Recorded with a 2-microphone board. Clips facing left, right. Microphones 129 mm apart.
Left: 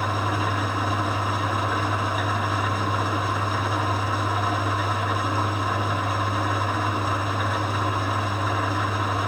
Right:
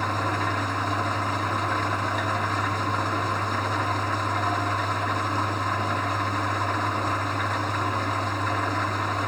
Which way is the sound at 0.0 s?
5° left (ahead or behind).